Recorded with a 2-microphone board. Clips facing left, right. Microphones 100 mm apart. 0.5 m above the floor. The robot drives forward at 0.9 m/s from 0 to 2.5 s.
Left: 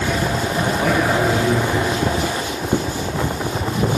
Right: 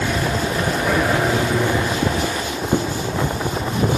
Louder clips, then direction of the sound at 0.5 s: Left 2 dB; 65° left (ahead or behind).